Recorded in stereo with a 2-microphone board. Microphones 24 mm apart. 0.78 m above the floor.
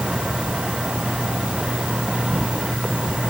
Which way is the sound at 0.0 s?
65° right (ahead or behind).